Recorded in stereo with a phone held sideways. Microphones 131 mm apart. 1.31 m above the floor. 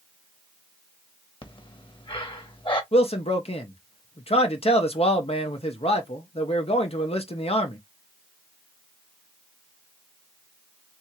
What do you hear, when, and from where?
1.4 s breathing: 40° left (ahead or behind), 1.0 m
2.9 s a man speaking: 50° left (ahead or behind), 1.0 m